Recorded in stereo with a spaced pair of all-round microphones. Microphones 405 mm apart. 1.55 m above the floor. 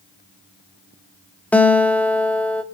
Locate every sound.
1.5 s a guitar: 5° left (ahead or behind), 1.2 m